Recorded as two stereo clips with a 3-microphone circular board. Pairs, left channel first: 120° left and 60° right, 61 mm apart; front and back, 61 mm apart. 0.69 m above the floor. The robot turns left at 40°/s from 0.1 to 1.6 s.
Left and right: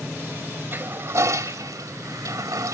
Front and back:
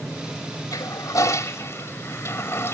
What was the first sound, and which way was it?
A toilet flushing, 5° right.